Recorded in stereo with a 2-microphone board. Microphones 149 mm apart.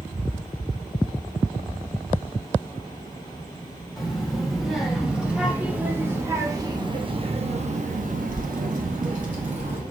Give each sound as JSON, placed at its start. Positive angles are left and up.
{"t": 4.0, "sound": "a child speaking", "side_deg": 0, "distance_m": 2.5}